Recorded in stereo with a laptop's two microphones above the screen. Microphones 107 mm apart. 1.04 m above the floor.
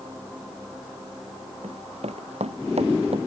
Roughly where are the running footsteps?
Right.